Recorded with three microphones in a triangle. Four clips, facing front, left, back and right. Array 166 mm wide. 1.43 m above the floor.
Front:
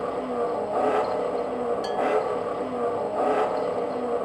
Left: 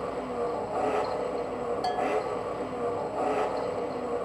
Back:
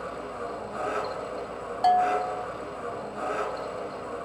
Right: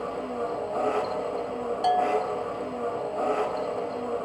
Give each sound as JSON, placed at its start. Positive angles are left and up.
{"t": 0.0, "sound": "an engine running", "azimuth_deg": -5, "distance_m": 2.0}
{"t": 1.8, "sound": "a bell", "azimuth_deg": -155, "distance_m": 0.6}